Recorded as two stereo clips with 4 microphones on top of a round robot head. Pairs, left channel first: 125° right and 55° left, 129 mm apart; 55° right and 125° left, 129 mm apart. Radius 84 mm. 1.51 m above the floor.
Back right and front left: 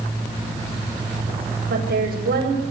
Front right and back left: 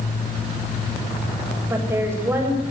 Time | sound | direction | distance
1.7 | a woman speaking | 55° left | 8 m